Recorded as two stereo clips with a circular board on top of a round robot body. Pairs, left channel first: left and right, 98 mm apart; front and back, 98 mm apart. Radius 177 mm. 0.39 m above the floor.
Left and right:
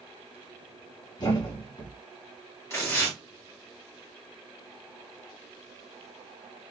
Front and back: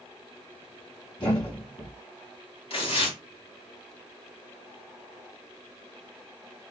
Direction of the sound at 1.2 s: 40° left.